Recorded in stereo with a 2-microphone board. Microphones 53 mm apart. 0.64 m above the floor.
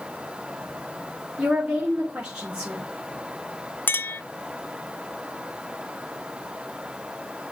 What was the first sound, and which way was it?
A woman speaking, 20° right (ahead or behind).